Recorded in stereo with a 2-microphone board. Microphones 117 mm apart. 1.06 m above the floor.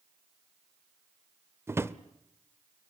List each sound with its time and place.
1.7 s a drawer: 20° right (ahead or behind), 0.9 m